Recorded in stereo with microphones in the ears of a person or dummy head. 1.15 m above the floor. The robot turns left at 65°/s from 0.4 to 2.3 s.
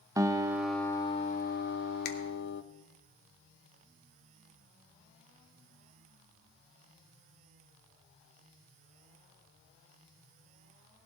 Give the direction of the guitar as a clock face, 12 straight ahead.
5 o'clock.